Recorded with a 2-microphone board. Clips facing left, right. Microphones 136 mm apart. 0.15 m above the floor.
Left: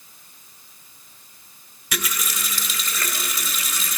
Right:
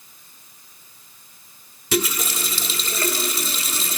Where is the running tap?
30° right (ahead or behind), 1.3 m.